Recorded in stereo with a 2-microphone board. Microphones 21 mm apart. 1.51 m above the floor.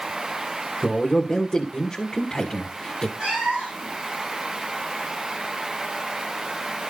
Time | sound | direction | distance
0.8 | a man speaking | 10° left (ahead or behind) | 1.8 m
3.2 | a cat meowing | 55° right (ahead or behind) | 7 m